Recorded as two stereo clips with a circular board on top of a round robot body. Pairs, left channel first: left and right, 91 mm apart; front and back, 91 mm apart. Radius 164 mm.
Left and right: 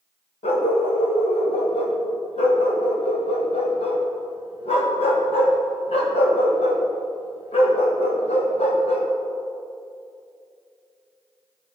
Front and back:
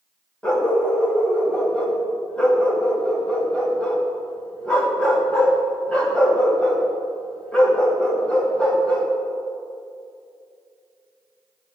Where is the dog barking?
80° left, 1.5 m.